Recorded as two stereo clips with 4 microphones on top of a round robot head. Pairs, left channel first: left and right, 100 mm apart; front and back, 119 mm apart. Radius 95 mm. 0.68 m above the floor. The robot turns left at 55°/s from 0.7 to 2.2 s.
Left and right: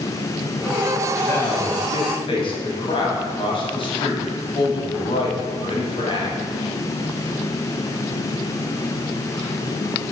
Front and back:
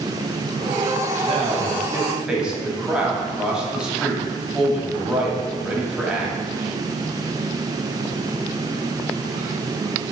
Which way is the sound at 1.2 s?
150° left.